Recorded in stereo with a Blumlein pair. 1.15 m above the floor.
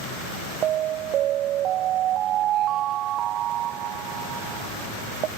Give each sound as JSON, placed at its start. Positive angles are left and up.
{"t": 0.6, "sound": "an alarm", "azimuth_deg": -30}